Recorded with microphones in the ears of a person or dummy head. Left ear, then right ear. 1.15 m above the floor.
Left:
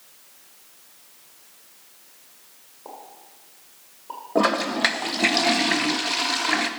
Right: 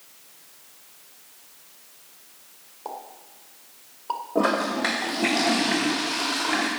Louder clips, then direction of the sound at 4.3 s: Left 3 dB; 45° left (ahead or behind).